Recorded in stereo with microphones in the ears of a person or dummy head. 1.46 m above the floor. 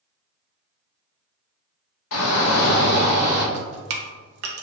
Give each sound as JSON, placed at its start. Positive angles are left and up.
{"t": 2.1, "sound": "a shout", "side_deg": 70, "distance_m": 1.0}
{"t": 3.5, "sound": "dripping", "side_deg": -65, "distance_m": 0.5}